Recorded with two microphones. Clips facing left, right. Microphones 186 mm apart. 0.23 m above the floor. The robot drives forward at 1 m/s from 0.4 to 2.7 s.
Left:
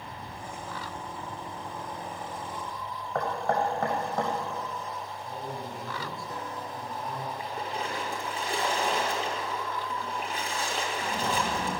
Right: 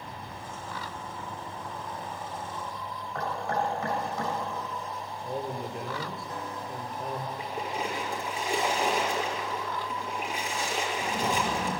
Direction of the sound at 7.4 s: 15° right (ahead or behind).